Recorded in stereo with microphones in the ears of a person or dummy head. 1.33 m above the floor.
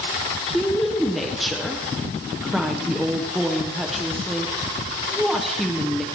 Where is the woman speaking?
Centre (ahead or behind), 0.6 m.